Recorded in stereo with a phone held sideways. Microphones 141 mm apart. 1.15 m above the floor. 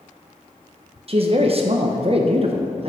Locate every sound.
1.1 s a man speaking: 45° right (ahead or behind), 0.5 m